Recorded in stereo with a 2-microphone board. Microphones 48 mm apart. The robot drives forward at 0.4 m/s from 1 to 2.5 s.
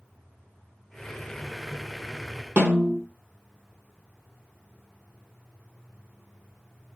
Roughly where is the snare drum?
Right.